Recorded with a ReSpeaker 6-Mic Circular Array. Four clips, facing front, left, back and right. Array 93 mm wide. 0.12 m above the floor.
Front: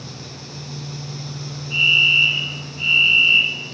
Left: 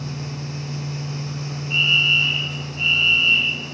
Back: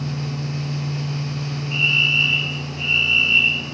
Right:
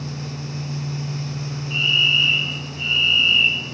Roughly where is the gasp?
I don't hear a gasp.